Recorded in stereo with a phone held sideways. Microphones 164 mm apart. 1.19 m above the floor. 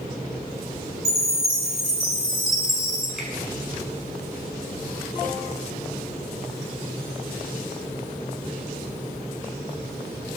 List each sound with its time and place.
1.1 s a chime: 20° left (ahead or behind), 8 m
3.2 s a finger snap: centre (ahead or behind), 8.5 m